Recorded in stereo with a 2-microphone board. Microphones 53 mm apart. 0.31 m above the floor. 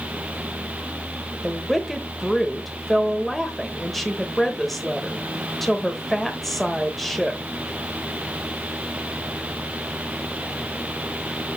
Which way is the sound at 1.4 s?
5° left (ahead or behind).